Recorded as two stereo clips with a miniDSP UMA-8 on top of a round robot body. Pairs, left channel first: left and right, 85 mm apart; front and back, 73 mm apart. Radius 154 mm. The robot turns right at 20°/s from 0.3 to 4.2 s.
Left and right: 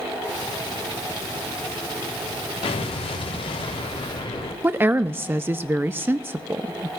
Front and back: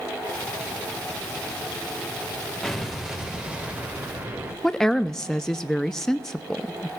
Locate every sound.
2.6 s an explosion: 85° left, 0.9 m; by 4.5 s 115° left, 0.9 m
4.6 s a woman speaking: 75° right, 0.6 m